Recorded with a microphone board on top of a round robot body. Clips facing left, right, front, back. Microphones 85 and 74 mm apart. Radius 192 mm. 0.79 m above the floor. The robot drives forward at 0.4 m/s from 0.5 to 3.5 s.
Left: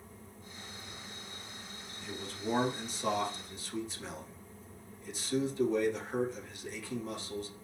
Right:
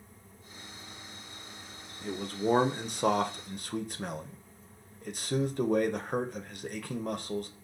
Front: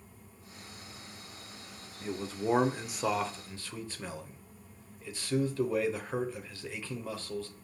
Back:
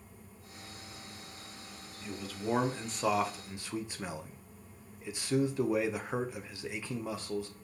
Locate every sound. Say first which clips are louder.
2.0 s a man speaking: right 8 dB, front 4 dB; 50° right, 0.8 m; by 7.5 s 110° right, 0.7 m